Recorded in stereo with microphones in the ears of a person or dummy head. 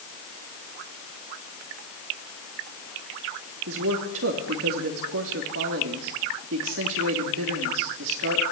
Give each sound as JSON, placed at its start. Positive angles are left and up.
{"t": 3.7, "sound": "a man speaking", "side_deg": -80, "distance_m": 3.0}